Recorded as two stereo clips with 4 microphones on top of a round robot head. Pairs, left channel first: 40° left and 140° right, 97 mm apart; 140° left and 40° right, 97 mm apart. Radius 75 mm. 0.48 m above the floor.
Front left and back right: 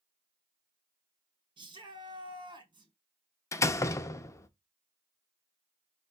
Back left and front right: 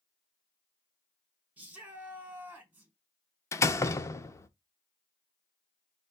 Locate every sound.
1.6 s a shout: 115° right, 1.5 m
3.5 s a door slam: 90° left, 0.6 m